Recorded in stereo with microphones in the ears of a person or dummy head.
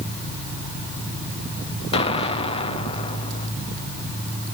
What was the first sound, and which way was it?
An explosion, 35° left (ahead or behind).